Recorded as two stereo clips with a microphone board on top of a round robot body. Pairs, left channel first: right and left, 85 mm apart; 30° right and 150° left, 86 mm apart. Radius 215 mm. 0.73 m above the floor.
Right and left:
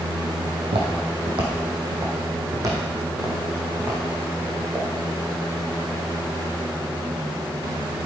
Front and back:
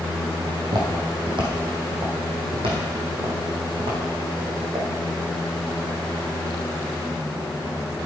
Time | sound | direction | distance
0.6 | footsteps | 105° left | 1.9 m